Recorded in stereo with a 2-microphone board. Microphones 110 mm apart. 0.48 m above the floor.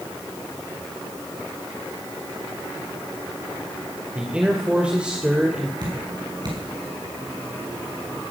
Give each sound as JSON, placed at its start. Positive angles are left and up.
{"t": 4.2, "sound": "a man speaking", "side_deg": -10, "distance_m": 2.0}
{"t": 5.8, "sound": "dripping", "side_deg": -40, "distance_m": 5.5}